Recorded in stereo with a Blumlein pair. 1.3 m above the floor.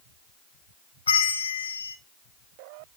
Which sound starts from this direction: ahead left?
A bell, at 1.1 s.